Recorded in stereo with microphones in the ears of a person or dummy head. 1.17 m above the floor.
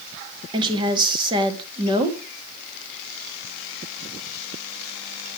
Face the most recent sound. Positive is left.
turn(degrees=-30)  # may be behind; listen again after turning